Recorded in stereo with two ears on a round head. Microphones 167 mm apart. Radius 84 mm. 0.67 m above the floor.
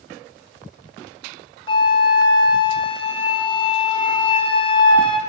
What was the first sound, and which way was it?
A flute, 30° left (ahead or behind).